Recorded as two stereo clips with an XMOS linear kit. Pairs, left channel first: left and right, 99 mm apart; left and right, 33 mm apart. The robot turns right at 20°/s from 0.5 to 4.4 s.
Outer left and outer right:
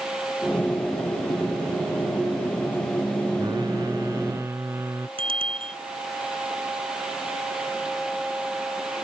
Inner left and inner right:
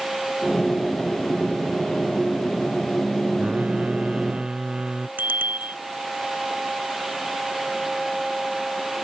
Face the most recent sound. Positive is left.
turn(degrees=-65)  # may be behind; listen again after turning